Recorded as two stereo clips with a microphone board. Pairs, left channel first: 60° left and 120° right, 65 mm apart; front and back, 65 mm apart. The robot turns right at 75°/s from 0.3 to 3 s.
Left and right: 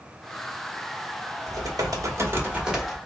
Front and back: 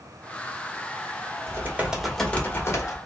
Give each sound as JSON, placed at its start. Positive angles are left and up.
{"t": 1.5, "sound": "typing on a keyboard", "azimuth_deg": -135, "distance_m": 0.7}